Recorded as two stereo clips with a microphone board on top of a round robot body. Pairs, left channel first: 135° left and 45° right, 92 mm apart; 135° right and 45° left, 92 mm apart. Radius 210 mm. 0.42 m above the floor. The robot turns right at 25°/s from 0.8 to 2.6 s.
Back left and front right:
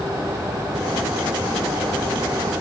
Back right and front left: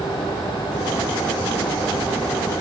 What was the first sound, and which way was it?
Only background noise.